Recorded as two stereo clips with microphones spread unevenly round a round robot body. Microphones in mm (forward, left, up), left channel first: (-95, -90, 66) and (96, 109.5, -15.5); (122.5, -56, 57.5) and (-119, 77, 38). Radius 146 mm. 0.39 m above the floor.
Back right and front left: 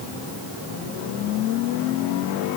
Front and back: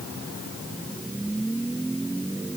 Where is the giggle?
No giggle in this recording.